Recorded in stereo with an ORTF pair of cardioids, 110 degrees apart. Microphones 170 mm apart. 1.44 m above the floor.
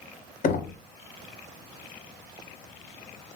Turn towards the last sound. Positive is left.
turn(degrees=60)